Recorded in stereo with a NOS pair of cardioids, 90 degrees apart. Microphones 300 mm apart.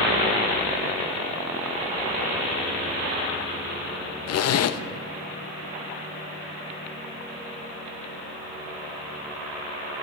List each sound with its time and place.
4.3 s a zipper: 55° left, 0.8 m